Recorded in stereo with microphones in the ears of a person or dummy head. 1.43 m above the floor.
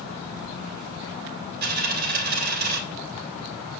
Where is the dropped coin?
55° right (ahead or behind), 3 m.